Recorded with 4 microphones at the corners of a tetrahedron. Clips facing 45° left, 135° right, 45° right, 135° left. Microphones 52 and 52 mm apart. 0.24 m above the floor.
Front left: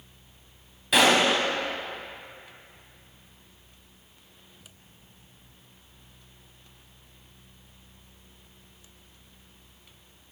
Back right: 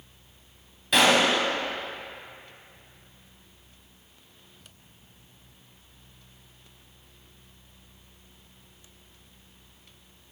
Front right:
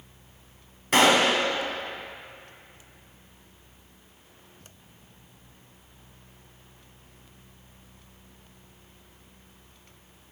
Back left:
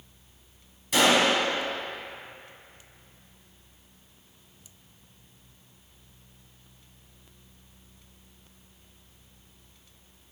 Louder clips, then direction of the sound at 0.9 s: Even, front right 2 dB; 45° right.